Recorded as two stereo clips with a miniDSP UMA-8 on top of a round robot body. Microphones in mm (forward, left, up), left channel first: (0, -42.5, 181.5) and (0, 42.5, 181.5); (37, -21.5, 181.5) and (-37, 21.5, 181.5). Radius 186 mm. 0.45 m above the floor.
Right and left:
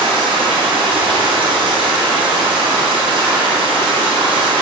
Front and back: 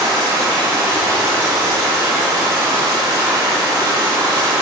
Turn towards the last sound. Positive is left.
turn(degrees=95)